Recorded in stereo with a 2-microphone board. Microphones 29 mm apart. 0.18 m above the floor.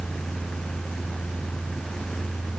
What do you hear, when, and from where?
Only background noise.